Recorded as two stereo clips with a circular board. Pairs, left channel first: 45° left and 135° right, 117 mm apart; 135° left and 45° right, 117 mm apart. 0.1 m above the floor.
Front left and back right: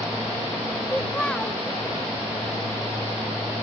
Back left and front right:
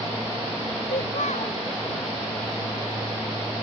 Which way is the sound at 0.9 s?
125° left.